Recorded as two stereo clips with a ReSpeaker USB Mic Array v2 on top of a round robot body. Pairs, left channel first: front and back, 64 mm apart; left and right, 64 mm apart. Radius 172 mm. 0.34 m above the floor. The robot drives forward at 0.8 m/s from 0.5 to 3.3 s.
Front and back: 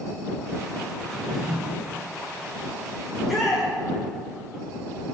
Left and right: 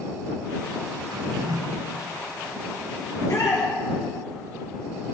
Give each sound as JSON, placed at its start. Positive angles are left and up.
{"t": 1.1, "sound": "a drawer", "azimuth_deg": -80, "distance_m": 1.1}
{"t": 3.1, "sound": "a shout", "azimuth_deg": 85, "distance_m": 2.0}